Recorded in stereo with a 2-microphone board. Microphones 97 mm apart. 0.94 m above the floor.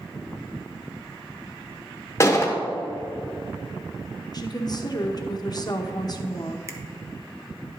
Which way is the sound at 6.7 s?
25° right (ahead or behind).